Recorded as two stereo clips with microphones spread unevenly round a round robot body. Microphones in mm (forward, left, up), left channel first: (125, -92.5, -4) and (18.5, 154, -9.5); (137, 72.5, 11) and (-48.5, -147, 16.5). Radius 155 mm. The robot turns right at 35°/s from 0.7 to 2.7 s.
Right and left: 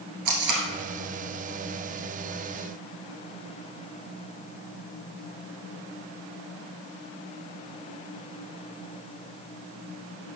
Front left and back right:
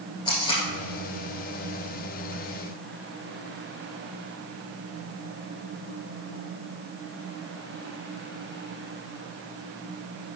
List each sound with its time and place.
0.2 s tape being pulled: 125° left, 1.9 m